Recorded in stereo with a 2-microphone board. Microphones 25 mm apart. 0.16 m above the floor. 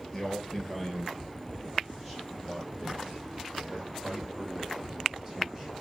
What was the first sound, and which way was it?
A man speaking, 15° left (ahead or behind).